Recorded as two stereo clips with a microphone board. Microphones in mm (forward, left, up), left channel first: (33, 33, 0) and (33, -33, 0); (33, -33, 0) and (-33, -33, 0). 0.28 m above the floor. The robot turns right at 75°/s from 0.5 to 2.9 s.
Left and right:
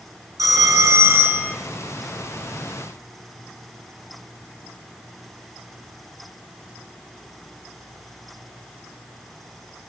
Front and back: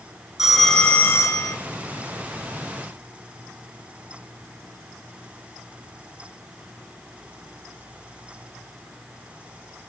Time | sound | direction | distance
0.4 | a phone ringing | 95° right | 2 m